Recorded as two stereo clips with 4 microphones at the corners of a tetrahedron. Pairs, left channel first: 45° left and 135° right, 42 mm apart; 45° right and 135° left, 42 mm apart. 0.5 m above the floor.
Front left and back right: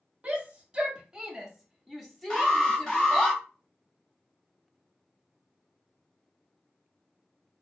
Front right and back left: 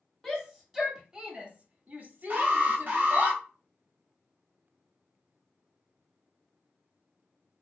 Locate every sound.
0.2 s a shout: 120° right, 1.0 m; by 3.3 s 120° left, 1.7 m
2.3 s an alarm: 110° left, 1.8 m